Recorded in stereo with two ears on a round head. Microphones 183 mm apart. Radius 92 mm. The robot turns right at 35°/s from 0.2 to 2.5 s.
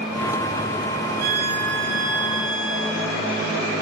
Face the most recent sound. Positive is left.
turn(degrees=-85)